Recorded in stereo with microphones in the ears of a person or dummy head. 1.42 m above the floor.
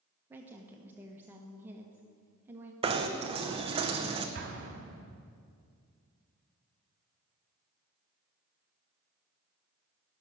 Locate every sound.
0.3 s a woman speaking: 15° right (ahead or behind), 1.2 m
2.8 s knocking: 25° right (ahead or behind), 0.9 m
4.3 s an explosion: 45° right (ahead or behind), 1.5 m